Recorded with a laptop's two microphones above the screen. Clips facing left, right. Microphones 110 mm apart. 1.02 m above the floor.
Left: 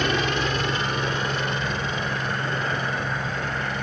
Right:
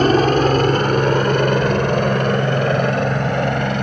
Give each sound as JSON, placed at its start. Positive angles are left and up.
{"t": 0.0, "sound": "a helicopter", "side_deg": -45}